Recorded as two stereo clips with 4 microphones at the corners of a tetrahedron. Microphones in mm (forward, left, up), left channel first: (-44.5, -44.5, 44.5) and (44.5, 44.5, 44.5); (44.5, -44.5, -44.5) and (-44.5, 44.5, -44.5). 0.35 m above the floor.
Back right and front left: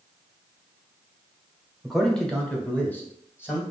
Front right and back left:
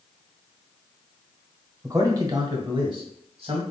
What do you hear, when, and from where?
1.8 s a man speaking: 135° left, 1.1 m; by 3.6 s 160° left, 1.8 m